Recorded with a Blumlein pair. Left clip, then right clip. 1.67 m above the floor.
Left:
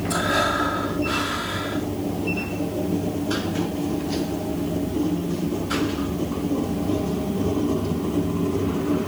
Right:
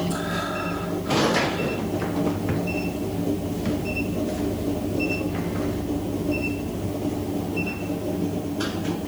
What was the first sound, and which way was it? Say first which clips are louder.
Breathing: left 6 dB; 70° left.